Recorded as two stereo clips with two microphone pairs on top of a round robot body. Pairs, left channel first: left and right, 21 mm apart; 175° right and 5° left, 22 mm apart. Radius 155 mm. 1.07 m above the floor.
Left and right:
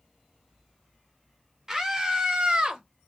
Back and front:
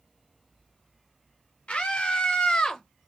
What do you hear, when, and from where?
1.7 s a scream: 145° right, 1.7 m; by 2.8 s 110° right, 1.4 m